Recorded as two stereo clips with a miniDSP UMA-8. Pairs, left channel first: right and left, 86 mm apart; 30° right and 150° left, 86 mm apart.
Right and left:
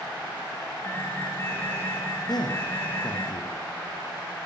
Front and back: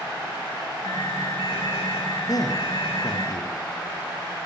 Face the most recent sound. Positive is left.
turn(degrees=-65)